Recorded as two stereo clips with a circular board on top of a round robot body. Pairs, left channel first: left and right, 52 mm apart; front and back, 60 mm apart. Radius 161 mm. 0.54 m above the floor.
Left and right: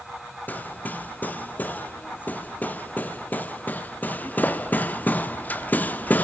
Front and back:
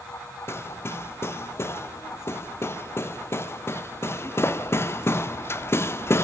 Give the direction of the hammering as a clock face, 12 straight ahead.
11 o'clock.